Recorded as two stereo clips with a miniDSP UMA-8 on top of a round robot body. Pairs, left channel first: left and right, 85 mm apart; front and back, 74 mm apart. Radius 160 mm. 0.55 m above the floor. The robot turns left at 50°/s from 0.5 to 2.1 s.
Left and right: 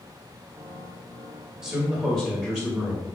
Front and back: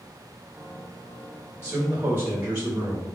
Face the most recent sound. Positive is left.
turn(degrees=-175)